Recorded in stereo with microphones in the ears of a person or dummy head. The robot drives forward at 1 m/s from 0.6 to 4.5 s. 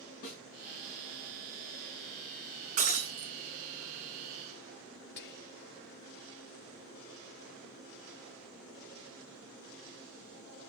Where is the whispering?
55° left (ahead or behind), 0.7 m.